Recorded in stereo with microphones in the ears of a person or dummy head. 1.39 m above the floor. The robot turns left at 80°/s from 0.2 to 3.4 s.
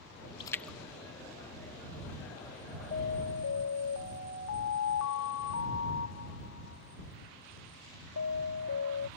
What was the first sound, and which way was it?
A splash, 25° left (ahead or behind).